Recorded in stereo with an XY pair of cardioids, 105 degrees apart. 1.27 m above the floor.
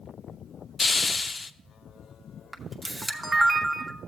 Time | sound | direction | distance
0.8 | a hiss | 20° left | 0.5 m
2.5 | a camera shutter | 20° right | 0.9 m